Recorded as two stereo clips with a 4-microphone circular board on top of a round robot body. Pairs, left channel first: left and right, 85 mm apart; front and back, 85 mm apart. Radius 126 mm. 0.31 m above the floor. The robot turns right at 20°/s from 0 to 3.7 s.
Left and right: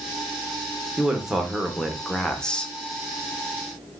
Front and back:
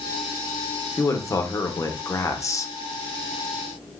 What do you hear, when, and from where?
1.0 s a man speaking: 15° right, 1.1 m; by 2.7 s 20° left, 1.1 m